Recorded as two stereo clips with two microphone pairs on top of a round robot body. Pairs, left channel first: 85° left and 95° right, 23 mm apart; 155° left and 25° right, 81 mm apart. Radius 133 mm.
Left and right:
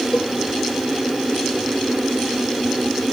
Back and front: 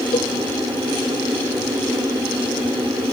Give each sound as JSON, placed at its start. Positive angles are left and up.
{"t": 0.1, "sound": "a cowbell", "azimuth_deg": 135}